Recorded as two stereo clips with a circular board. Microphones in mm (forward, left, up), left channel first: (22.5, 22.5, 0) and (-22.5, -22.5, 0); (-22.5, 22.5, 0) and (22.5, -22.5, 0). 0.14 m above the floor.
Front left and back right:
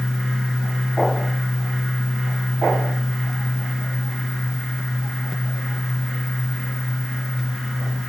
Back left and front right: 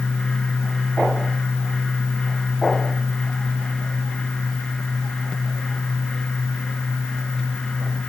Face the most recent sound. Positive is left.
No sound to turn to.